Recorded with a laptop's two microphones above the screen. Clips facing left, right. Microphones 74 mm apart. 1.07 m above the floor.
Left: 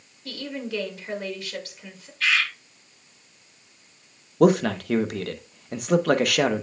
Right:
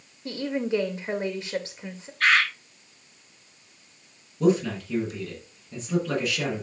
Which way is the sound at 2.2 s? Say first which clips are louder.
Right 3 dB; 45° right (ahead or behind).